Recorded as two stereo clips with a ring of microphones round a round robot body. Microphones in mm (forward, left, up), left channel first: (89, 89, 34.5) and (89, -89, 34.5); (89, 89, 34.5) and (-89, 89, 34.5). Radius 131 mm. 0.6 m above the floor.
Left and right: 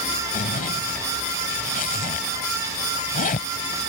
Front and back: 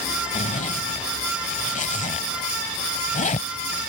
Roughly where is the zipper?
Ahead left.